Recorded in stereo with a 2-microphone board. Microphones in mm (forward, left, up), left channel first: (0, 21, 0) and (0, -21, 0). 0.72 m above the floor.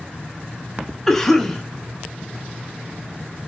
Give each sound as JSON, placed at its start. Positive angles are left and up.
{"t": 1.1, "sound": "a cough", "side_deg": 5, "distance_m": 1.0}